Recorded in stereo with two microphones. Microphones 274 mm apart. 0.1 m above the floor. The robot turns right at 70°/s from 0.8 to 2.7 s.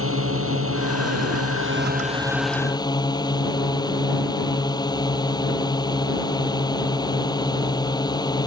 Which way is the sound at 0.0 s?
115° right.